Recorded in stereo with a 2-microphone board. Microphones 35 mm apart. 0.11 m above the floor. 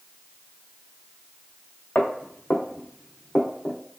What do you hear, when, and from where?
1.9 s footsteps: 65° left (ahead or behind), 1.7 m; by 3.8 s 40° left (ahead or behind), 2 m